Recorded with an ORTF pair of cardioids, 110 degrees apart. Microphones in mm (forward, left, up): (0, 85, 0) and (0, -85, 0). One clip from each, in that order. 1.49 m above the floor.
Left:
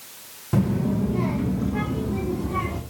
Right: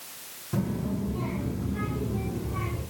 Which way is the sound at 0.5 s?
40° left.